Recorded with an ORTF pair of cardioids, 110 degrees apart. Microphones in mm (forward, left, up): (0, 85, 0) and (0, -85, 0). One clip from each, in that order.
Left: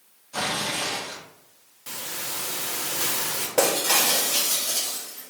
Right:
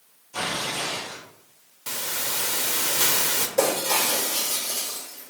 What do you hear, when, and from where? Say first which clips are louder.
0.3 s tearing paper: left 1 dB; 70° left, 2.0 m
1.9 s a hiss: right 4 dB; 25° right, 0.5 m
3.6 s breaking glass: left 2 dB; 70° left, 1.2 m